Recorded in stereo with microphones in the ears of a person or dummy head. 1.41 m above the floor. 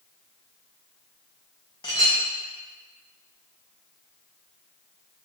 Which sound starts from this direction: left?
A clink, at 1.8 s.